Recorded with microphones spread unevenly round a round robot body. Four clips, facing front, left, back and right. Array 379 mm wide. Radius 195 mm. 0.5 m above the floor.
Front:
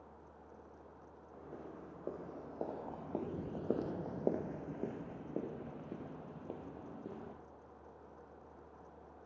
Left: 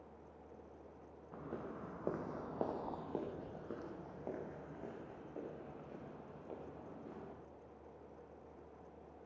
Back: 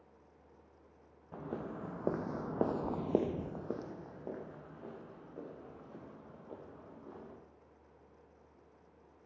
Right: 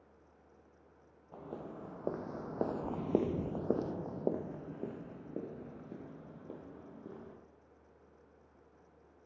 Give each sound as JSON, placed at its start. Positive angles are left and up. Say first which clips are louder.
{"t": 1.3, "sound": "footsteps", "louder": "right 1 dB, back 8 dB", "azimuth_deg": 175, "distance_m": 2.5}